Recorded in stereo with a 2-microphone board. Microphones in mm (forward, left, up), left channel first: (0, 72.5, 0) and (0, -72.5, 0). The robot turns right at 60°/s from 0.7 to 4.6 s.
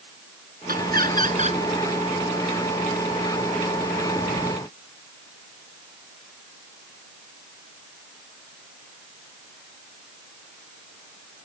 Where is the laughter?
100° right; by 1.6 s 45° right.